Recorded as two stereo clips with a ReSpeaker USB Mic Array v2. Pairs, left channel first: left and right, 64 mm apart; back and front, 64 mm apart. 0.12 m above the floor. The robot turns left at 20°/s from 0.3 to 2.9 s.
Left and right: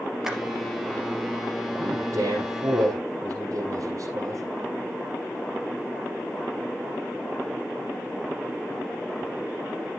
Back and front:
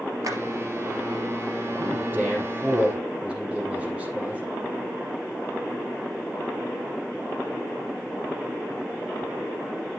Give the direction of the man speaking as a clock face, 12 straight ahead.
2 o'clock.